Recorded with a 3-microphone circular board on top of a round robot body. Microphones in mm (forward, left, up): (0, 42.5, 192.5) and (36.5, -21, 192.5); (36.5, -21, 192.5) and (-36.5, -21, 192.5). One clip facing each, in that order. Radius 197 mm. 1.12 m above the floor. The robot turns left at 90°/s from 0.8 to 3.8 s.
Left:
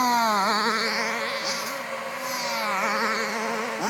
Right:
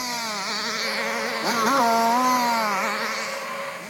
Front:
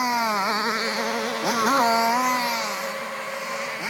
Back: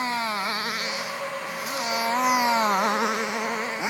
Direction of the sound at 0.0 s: 75° left.